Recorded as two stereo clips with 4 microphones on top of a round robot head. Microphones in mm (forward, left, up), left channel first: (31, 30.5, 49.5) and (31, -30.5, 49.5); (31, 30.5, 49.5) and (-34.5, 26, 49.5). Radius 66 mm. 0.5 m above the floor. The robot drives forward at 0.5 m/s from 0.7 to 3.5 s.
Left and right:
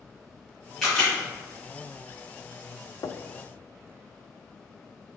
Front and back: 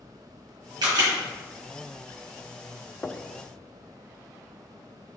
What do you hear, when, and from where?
0.8 s a camera shutter: straight behind, 2.5 m
3.0 s knocking: 75° left, 0.5 m; by 3.2 s 90° left, 0.5 m